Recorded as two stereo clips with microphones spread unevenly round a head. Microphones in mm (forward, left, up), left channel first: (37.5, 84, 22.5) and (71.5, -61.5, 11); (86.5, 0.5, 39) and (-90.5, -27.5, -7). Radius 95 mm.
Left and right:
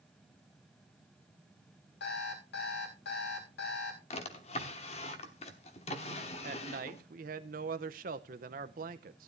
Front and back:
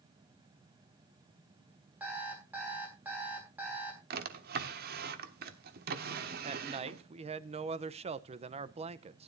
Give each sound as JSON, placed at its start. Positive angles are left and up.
{"t": 2.0, "sound": "an alarm clock", "azimuth_deg": 105, "distance_m": 4.5}
{"t": 4.1, "sound": "a drawer", "azimuth_deg": 145, "distance_m": 1.1}
{"t": 6.4, "sound": "a man speaking", "azimuth_deg": -120, "distance_m": 0.8}